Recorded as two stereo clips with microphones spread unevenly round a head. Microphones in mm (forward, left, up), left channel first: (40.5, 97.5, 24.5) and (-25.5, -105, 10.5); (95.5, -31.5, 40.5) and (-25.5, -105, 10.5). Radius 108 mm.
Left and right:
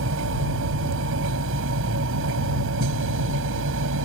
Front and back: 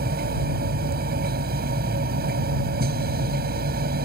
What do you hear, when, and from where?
0.0 s a machine running: 140° right